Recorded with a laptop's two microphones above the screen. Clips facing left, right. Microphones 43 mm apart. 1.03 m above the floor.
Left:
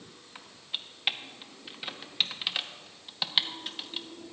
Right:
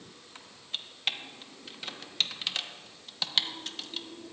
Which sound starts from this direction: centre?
Typing on a keyboard, at 0.3 s.